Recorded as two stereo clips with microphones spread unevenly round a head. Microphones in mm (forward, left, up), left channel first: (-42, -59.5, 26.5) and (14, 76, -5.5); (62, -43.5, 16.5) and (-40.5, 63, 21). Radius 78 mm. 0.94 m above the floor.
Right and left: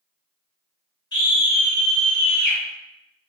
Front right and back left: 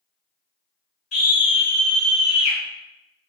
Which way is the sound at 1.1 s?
45° right.